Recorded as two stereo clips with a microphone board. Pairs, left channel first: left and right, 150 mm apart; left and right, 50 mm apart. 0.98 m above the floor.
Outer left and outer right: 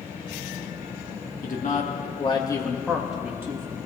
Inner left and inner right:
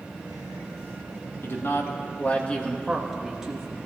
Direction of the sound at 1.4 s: 65° left (ahead or behind).